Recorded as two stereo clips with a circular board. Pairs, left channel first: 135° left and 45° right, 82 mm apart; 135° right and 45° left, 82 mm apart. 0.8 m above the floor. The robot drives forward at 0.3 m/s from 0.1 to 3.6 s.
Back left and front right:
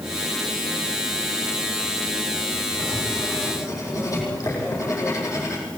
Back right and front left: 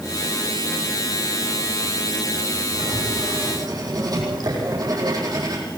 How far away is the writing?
About 9 m.